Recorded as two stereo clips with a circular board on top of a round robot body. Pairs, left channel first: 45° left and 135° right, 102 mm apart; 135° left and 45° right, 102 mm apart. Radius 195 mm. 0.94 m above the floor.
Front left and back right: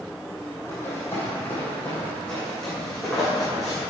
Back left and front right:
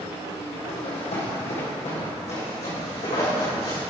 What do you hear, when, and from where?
0.7 s running footsteps: 110° left, 2.5 m; by 3.8 s 135° left, 5.5 m